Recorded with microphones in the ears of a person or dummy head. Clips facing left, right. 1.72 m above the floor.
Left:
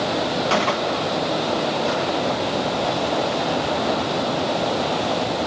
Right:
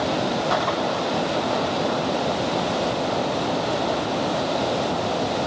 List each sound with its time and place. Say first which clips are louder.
0.5 s a gunshot: left 2 dB; 35° left (ahead or behind), 1.7 m